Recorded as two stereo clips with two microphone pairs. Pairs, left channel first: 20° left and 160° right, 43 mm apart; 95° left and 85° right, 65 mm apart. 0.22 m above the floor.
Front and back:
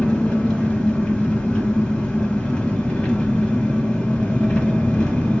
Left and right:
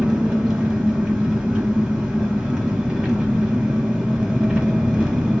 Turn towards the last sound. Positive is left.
turn(degrees=-20)